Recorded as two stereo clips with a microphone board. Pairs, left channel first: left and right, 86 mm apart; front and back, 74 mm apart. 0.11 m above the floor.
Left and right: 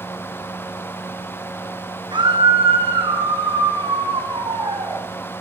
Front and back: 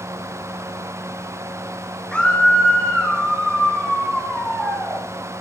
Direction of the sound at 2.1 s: 80° right.